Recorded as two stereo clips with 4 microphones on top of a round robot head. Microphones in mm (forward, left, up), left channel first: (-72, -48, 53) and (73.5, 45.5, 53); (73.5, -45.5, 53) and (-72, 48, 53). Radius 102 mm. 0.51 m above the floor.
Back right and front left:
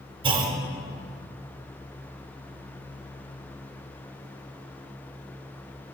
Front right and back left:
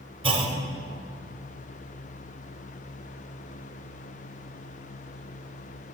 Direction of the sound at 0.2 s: 90° left.